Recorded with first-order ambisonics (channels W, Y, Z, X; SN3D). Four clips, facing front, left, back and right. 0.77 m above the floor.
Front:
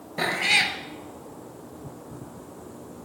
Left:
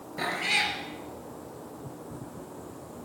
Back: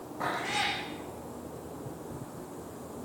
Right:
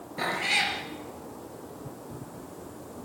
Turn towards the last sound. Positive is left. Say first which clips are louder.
# right 1 dB, front 9 dB
turn(degrees=0)